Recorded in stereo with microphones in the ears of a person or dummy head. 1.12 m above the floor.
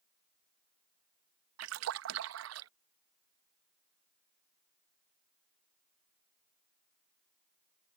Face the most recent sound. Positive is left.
turn(degrees=-70)  # may be behind; listen again after turning